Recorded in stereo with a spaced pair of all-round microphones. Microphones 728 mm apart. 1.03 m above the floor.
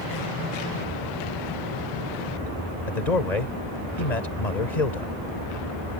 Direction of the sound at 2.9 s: 65° left (ahead or behind).